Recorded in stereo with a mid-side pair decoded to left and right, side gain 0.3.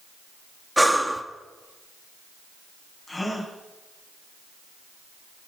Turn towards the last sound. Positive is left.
turn(degrees=15)